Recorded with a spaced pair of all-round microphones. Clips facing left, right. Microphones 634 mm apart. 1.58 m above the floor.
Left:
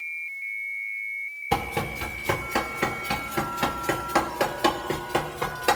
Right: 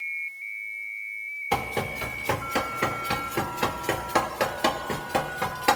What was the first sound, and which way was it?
Running footsteps, 40° left (ahead or behind).